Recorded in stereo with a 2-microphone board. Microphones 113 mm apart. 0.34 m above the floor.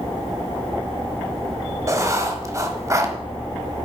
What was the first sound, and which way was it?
Writing, 25° right (ahead or behind).